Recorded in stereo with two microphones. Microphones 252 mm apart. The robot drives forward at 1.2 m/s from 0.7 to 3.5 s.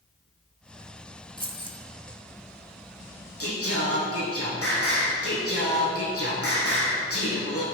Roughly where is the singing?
Left.